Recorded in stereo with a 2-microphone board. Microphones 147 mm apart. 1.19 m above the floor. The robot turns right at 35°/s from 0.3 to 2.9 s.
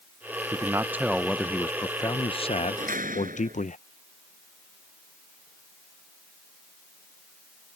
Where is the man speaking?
25° right; by 3.8 s 60° left.